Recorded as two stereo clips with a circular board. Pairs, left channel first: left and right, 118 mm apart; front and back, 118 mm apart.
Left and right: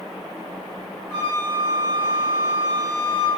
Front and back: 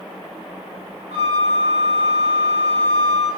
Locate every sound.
1.1 s a flute: 155° left, 8.5 m